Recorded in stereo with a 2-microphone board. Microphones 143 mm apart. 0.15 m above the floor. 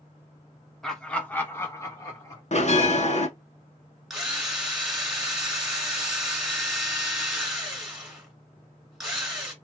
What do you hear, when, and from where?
0.8 s laughter: centre (ahead or behind), 1.2 m; by 2.4 s 25° left (ahead or behind), 1.5 m
2.5 s a bell: 50° left (ahead or behind), 0.7 m
4.1 s a drill: centre (ahead or behind), 1.9 m